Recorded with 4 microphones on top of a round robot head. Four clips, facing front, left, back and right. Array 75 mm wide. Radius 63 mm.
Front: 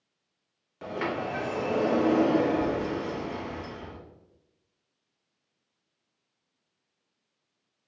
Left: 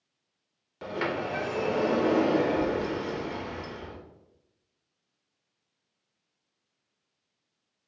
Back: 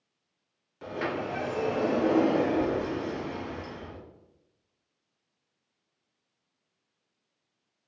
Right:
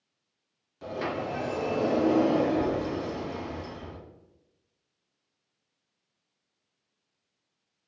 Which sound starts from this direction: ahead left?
A sliding door, at 0.8 s.